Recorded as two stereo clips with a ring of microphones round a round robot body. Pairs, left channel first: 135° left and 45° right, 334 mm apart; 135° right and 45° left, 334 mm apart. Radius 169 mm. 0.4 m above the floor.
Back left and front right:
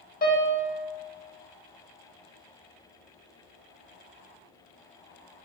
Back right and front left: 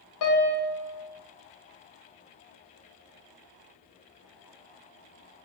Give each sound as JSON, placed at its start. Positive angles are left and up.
{"t": 0.2, "sound": "a piano", "azimuth_deg": -160, "distance_m": 0.7}